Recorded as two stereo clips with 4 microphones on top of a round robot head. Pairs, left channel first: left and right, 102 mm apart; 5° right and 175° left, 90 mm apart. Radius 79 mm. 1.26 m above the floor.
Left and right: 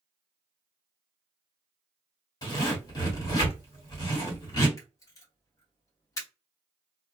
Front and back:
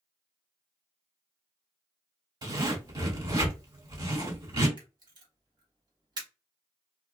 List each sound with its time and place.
2.4 s a zipper: 140° left, 1.6 m
4.8 s a camera shutter: 145° left, 1.1 m